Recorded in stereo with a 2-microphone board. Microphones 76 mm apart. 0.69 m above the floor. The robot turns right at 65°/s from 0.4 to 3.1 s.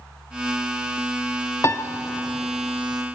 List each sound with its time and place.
1.6 s a piano: 45° left (ahead or behind), 1.1 m; by 1.9 s 35° left (ahead or behind), 1.1 m